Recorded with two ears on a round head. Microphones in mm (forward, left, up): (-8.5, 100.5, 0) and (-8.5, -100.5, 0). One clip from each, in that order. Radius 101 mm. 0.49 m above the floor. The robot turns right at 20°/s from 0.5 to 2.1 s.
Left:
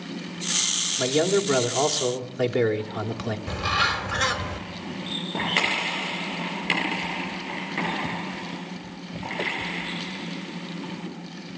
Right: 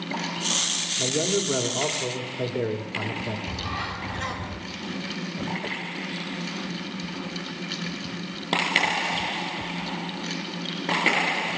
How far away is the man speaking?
About 1.7 m.